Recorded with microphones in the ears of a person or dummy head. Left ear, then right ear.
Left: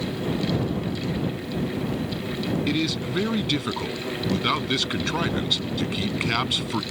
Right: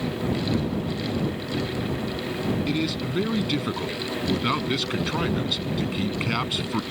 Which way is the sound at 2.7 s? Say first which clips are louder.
Left 1 dB; 10° left (ahead or behind).